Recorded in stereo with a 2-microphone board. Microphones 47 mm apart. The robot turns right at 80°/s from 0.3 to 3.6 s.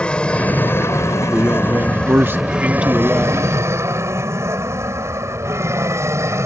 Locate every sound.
0.0 s an aircraft: 20° left (ahead or behind); by 6.5 s 65° right (ahead or behind)
1.3 s a man speaking: 155° right; by 3.4 s 15° left